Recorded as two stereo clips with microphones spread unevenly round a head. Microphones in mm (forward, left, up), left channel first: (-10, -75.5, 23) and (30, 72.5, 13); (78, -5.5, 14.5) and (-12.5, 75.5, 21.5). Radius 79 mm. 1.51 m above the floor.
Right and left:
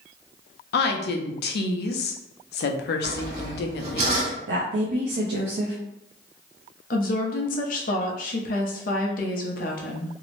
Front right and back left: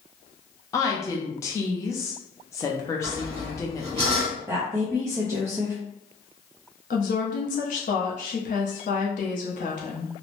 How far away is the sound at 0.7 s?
About 0.5 m.